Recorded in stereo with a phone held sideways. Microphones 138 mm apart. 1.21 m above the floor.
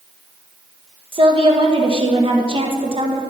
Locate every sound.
1.1 s a woman speaking: 40° right (ahead or behind), 1.5 m